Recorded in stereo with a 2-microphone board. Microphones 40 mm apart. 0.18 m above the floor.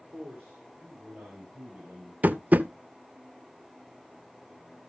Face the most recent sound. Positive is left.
turn(degrees=-45)  # may be behind; listen again after turning